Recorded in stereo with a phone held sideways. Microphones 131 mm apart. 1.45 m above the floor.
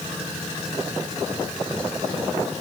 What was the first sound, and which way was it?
Only background noise.